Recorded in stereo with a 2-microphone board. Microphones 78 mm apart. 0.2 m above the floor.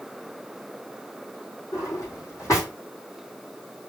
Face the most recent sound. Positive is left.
turn(degrees=40)  # may be behind; listen again after turning